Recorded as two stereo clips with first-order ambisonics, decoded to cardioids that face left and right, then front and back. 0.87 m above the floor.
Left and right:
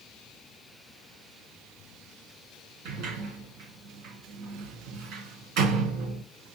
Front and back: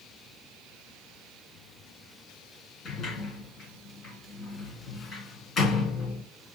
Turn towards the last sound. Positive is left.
turn(degrees=-65)